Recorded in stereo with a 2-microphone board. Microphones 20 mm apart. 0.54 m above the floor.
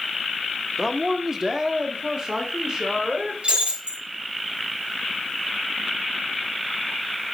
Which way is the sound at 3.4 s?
70° right (ahead or behind).